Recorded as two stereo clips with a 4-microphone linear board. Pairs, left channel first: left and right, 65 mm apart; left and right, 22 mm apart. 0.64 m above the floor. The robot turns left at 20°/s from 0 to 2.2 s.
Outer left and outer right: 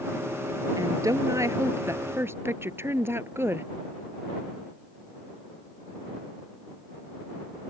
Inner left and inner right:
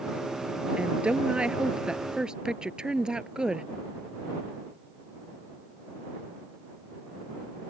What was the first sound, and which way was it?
A woman speaking, 70° right (ahead or behind).